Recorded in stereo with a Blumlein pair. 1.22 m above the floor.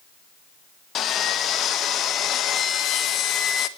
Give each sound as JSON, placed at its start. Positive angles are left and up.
{"t": 0.9, "sound": "sawing", "azimuth_deg": 30, "distance_m": 1.4}